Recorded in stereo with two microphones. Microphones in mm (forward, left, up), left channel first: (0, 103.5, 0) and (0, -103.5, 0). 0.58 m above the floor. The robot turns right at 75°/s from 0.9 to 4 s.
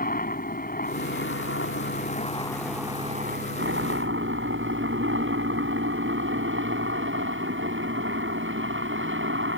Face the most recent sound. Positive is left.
turn(degrees=-80)